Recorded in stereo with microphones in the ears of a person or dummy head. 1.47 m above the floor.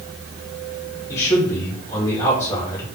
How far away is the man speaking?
About 1.5 m.